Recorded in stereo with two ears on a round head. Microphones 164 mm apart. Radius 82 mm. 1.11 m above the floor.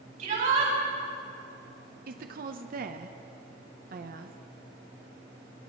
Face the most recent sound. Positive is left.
turn(degrees=-50)  # may be behind; listen again after turning